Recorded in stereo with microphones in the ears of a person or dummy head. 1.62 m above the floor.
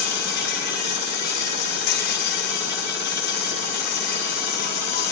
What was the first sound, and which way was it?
An insect, 55° left (ahead or behind).